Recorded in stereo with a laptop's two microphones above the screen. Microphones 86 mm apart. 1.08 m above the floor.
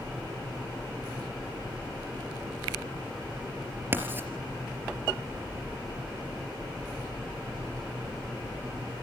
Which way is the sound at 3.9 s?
25° right (ahead or behind).